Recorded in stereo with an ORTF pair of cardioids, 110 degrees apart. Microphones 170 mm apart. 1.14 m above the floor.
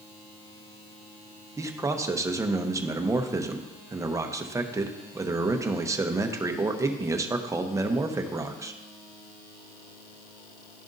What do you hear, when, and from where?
1.6 s a man speaking: 15° right, 0.8 m